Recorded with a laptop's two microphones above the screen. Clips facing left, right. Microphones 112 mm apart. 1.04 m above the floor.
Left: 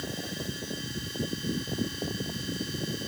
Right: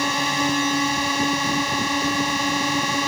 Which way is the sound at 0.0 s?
80° right.